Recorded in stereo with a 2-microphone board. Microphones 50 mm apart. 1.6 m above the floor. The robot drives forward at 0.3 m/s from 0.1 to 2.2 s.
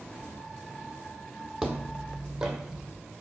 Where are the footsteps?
5° right (ahead or behind), 1.8 m; by 2.9 s 15° right (ahead or behind), 3 m.